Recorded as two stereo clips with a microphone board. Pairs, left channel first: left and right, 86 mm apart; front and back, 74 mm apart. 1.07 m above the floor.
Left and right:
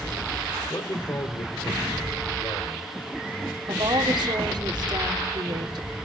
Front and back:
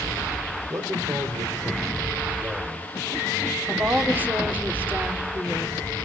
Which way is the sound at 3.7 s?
115° right.